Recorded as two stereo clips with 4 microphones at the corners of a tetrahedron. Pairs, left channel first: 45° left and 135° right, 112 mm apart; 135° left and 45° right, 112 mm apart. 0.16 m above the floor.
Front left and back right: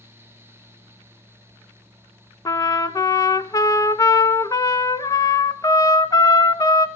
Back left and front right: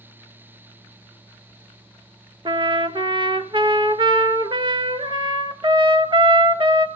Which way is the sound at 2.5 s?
10° right.